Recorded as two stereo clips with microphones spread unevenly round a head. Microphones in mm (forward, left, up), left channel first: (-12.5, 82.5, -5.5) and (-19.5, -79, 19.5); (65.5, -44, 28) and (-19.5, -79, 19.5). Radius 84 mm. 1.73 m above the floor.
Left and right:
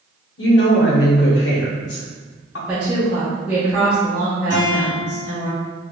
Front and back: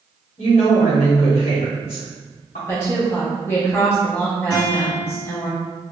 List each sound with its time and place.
0.4 s a woman speaking: 65° left, 1.1 m
2.7 s a woman speaking: 20° right, 0.8 m
4.5 s a guitar: 105° left, 1.9 m